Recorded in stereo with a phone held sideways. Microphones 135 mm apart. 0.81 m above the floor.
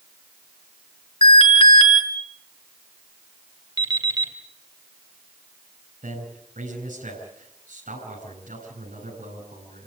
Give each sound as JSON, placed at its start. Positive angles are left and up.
{"t": 1.2, "sound": "an alarm", "side_deg": 45, "distance_m": 6.5}
{"t": 3.8, "sound": "an alarm clock", "side_deg": -30, "distance_m": 3.0}
{"t": 6.0, "sound": "a man speaking", "side_deg": -85, "distance_m": 9.0}